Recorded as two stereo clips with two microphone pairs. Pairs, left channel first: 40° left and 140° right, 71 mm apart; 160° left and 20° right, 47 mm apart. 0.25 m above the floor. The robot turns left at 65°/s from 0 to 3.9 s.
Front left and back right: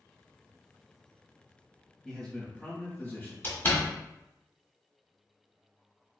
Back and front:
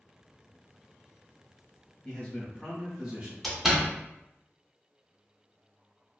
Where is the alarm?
No alarm in this recording.